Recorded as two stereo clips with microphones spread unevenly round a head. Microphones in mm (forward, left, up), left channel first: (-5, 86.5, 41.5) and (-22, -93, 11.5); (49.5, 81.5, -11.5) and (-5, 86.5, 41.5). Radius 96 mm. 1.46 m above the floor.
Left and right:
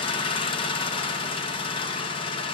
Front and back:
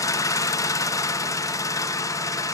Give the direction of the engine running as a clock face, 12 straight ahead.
11 o'clock.